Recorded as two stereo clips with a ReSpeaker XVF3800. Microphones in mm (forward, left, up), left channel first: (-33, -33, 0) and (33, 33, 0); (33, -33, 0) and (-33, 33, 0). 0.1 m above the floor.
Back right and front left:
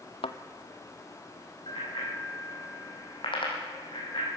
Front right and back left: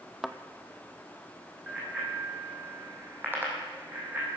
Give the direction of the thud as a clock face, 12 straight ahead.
4 o'clock.